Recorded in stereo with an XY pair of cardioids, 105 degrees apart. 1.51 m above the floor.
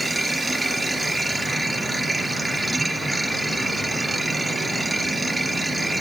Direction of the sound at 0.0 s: 15° right.